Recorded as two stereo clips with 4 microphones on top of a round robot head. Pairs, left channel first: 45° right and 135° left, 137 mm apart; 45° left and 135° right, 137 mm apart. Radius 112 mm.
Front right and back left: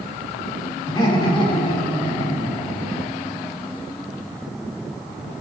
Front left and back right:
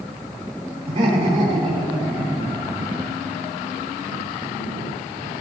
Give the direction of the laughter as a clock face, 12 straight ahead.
3 o'clock.